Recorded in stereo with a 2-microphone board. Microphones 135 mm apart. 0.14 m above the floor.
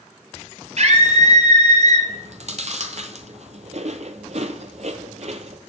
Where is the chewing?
55° right (ahead or behind), 0.8 m.